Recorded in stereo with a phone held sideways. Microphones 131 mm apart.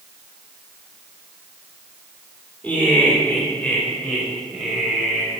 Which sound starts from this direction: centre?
Laughter, at 2.6 s.